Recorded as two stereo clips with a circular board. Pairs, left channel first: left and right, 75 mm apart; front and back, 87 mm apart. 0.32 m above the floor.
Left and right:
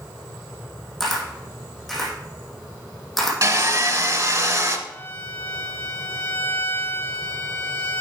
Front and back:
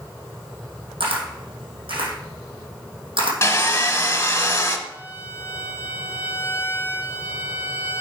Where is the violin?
130° left, 1.3 m.